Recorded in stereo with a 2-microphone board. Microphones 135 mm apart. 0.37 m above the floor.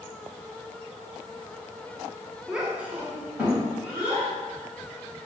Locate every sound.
2.5 s a child speaking: 5° right (ahead or behind), 0.6 m; by 4.3 s 15° right (ahead or behind), 2 m